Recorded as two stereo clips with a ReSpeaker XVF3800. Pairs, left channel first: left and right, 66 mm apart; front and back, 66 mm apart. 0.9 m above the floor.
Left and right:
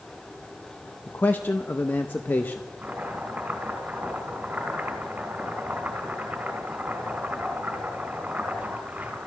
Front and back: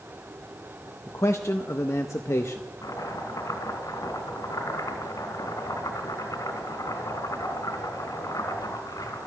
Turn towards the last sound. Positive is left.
turn(degrees=-20)